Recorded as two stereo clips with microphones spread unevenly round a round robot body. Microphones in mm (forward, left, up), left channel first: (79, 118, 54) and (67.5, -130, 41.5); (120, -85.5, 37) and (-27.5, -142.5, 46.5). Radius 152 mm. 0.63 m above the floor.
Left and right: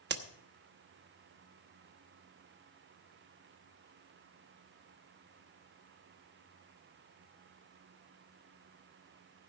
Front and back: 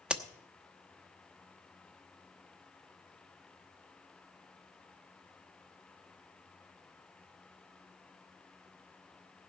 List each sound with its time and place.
0.1 s a crack: 75° right, 1.1 m